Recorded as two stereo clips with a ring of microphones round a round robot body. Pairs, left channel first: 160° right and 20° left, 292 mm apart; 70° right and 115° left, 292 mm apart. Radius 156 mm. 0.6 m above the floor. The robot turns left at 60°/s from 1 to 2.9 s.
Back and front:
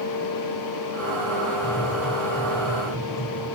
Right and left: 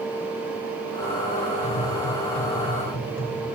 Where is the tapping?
45° right, 5.5 m; by 3.5 s 120° right, 5.5 m.